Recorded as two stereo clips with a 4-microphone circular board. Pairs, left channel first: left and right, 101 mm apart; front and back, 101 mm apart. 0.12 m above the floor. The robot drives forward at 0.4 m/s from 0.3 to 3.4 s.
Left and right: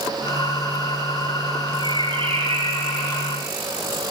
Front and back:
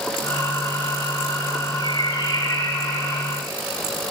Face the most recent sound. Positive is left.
turn(degrees=-70)